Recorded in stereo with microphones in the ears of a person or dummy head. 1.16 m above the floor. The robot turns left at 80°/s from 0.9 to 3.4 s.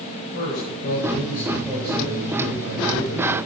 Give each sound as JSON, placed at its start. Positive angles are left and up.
{"t": 0.3, "sound": "a man speaking", "azimuth_deg": 65, "distance_m": 6.0}